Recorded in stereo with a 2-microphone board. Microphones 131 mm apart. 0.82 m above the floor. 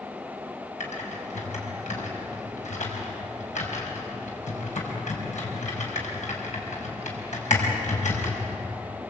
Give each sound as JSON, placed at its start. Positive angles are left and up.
{"t": 0.8, "sound": "typing on a keyboard", "side_deg": 70, "distance_m": 5.0}